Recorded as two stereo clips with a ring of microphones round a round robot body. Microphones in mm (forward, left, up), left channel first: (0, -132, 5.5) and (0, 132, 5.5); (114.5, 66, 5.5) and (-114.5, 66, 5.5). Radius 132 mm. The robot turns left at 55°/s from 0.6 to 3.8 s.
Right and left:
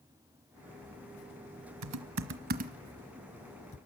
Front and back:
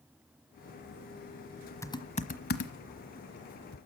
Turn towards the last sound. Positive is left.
turn(degrees=-30)